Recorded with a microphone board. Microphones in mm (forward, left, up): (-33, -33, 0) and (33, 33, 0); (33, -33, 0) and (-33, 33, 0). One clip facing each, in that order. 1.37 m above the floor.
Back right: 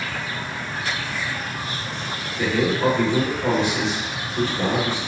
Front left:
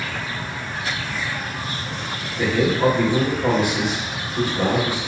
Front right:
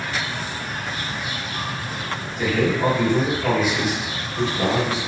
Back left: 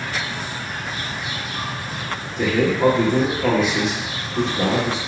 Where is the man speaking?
120° left, 1.3 m.